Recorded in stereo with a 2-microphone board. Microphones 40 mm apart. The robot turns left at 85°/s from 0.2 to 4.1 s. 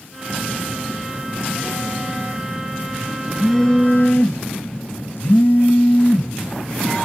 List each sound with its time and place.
0.3 s a phone buzzing: 80° left, 1.0 m; by 7.1 s 115° left, 1.0 m